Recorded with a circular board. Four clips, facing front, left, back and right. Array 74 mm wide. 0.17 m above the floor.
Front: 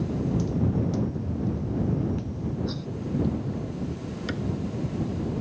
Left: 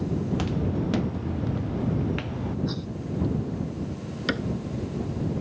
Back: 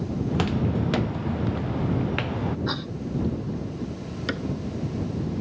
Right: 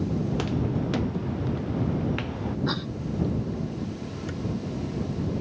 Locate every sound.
0.3 s footsteps: straight behind; by 2.6 s 175° right
2.7 s a cough: 140° right
4.3 s a cupboard door: 115° left